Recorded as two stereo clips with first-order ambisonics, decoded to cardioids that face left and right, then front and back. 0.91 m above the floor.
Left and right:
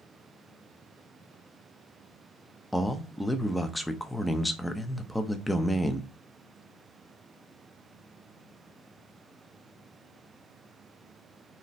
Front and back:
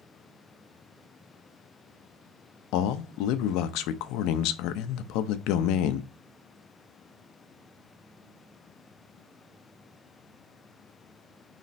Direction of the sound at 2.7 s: 5° left.